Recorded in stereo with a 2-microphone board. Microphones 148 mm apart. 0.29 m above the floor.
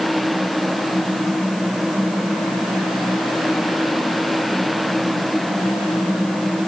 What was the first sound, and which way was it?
Only background noise.